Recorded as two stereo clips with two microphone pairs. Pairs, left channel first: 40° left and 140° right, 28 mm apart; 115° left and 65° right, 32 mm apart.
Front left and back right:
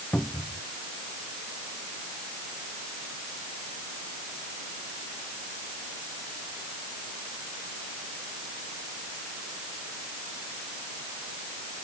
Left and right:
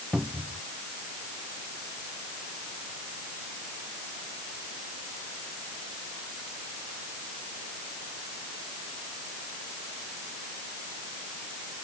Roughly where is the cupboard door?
Ahead.